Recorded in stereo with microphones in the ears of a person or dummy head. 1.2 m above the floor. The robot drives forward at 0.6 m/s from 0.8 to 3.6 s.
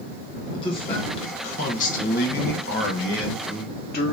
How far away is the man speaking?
About 1.6 m.